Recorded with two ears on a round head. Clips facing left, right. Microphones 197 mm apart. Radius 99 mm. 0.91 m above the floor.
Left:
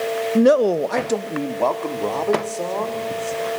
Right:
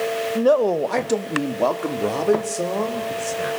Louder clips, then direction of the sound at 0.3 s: Left 3 dB; 35° left (ahead or behind).